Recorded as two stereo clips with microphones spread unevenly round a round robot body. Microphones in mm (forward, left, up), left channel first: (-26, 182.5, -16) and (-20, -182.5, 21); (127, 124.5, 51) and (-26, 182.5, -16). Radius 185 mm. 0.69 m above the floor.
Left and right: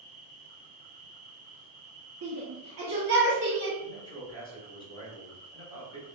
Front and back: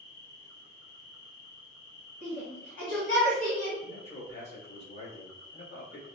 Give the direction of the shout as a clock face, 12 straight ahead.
1 o'clock.